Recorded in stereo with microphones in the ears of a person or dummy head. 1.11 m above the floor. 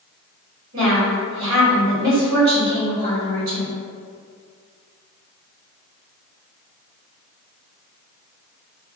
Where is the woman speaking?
70° right (ahead or behind), 1.9 m.